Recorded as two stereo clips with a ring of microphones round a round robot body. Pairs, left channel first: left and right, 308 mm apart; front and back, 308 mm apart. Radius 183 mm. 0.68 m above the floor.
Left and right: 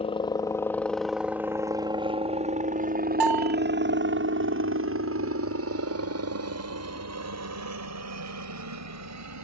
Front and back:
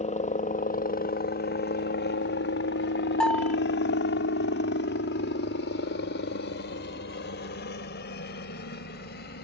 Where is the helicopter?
40° left; by 9.4 s 60° right.